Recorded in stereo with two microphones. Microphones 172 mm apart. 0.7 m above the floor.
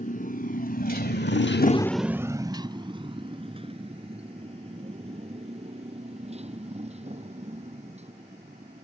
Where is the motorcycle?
45° left (ahead or behind); by 8.8 s 35° right (ahead or behind).